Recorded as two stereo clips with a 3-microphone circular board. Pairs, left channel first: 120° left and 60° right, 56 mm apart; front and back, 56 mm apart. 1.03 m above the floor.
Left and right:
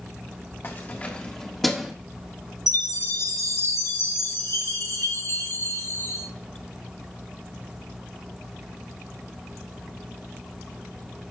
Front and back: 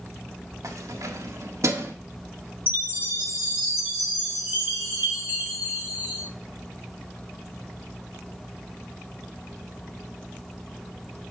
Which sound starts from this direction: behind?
Keys jangling, at 0.6 s.